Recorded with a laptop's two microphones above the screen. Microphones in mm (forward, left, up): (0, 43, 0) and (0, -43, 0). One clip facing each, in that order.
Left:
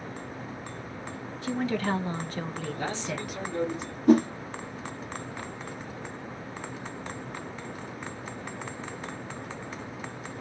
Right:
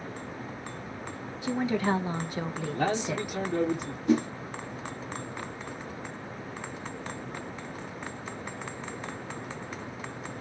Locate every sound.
1.4 s a woman speaking: 15° right (ahead or behind), 0.9 m
2.7 s a man speaking: 55° right (ahead or behind), 1.3 m
4.1 s a whoosh: 45° left (ahead or behind), 0.7 m